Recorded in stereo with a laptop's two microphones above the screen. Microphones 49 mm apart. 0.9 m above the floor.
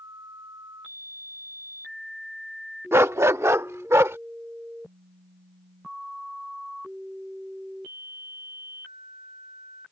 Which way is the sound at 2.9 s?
60° right (ahead or behind).